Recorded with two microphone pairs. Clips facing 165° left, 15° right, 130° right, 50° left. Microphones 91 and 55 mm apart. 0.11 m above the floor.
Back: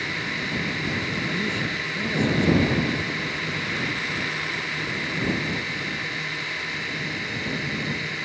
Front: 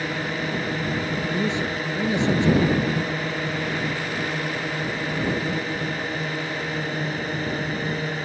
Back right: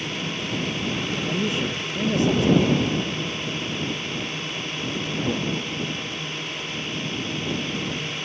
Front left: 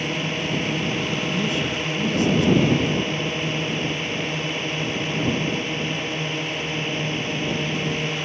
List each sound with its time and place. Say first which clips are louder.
0.0 s a drone: front 4 dB, front left 4 dB; 15° left
1.3 s a man speaking: front 3 dB, front left 1 dB; 80° right